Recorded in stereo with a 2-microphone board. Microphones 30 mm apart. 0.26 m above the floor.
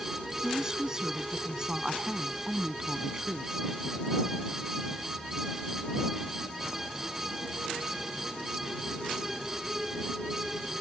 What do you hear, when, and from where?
0.4 s a woman speaking: 25° right (ahead or behind)